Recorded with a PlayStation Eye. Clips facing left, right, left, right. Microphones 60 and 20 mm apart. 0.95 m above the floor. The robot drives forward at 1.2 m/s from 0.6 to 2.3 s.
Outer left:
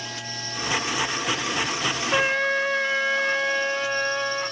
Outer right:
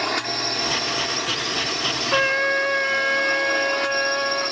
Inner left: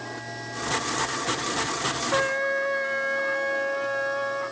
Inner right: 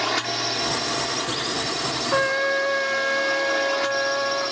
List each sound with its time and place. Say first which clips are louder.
0.0 s a drone: outer right 10 dB, inner right 11 dB; 60° right (ahead or behind); by 4.5 s 55° right (ahead or behind)
2.1 s a trumpet: outer right 3 dB, inner right 4 dB; 10° right (ahead or behind)